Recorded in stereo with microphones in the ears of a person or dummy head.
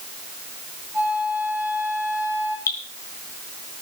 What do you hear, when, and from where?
0.9 s a flute: 15° right (ahead or behind), 8.5 m
2.7 s dripping: 20° left (ahead or behind), 5 m